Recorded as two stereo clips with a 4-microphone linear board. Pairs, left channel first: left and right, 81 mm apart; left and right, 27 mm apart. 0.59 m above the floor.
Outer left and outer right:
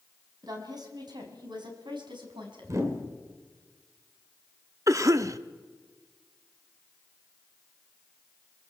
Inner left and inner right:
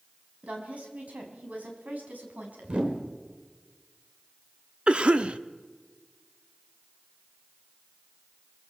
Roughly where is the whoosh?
Right.